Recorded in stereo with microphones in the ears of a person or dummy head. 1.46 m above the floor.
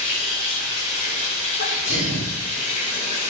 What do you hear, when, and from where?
0.0 s running water: 40° left (ahead or behind), 7 m
1.6 s a sneeze: 60° left (ahead or behind), 4.5 m